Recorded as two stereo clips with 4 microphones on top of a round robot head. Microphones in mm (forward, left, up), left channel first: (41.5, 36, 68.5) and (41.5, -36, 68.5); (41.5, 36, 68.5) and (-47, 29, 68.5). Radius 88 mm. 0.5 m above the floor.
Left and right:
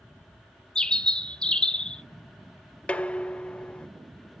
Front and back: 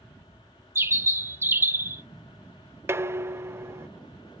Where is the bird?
155° left, 0.9 m.